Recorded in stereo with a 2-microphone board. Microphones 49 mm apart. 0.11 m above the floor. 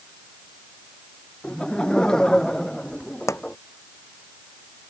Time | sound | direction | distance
1.4 | laughter | 15° left (ahead or behind) | ?
3.3 | a pop | 80° left | ?